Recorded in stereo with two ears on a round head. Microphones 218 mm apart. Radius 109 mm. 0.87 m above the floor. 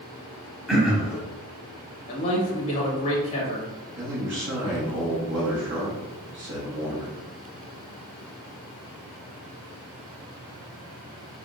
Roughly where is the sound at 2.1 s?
Left.